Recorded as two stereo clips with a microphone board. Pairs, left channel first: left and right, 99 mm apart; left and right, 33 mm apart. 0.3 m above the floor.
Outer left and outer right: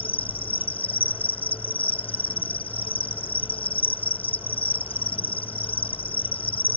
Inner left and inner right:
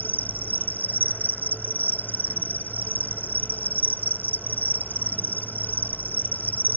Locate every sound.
0.0 s an insect: 75° left (ahead or behind)